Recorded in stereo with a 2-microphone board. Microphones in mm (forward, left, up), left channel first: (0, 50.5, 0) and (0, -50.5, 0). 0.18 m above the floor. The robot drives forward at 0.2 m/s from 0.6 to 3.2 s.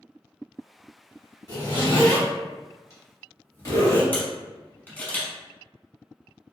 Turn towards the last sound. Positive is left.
turn(degrees=20)  # may be behind; listen again after turning